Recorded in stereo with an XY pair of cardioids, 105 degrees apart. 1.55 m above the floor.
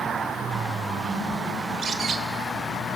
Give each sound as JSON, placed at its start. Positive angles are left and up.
{"t": 1.6, "sound": "a bird", "azimuth_deg": -55, "distance_m": 1.0}